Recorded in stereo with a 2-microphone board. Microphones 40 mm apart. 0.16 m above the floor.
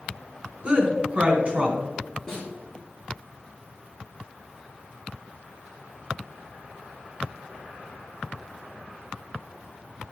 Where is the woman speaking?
30° right (ahead or behind), 1.9 m.